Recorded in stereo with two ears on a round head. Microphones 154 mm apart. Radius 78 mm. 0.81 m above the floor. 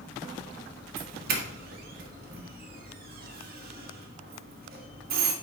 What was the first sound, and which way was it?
A doorbell, 55° right (ahead or behind).